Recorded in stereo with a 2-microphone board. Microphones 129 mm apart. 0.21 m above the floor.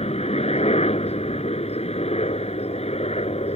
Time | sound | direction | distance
0.0 | a helicopter | 55° left (ahead or behind) | ?